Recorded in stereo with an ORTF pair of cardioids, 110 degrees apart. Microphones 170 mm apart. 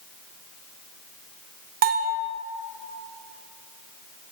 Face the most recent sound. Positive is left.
turn(degrees=-65)